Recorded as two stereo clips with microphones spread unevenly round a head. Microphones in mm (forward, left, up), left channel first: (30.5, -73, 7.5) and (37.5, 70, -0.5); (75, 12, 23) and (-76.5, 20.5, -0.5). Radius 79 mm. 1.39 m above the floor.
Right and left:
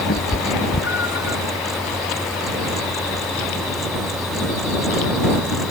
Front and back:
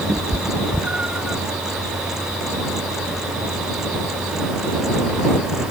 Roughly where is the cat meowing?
Right.